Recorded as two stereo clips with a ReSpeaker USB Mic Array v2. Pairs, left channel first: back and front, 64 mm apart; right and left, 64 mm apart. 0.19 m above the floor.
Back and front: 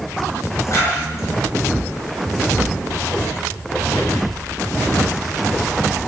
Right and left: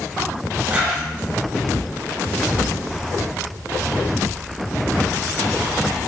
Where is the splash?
155° left, 3 m.